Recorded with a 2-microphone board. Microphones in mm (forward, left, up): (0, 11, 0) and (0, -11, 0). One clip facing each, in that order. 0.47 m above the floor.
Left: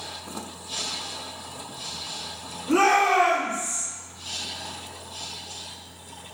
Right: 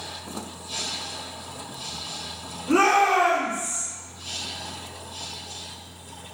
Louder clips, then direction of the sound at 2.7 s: Right 1 dB; 15° right (ahead or behind).